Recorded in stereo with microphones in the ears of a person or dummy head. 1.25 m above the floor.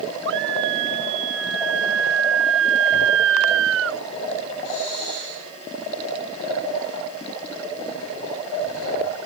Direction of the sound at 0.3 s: 75° right (ahead or behind).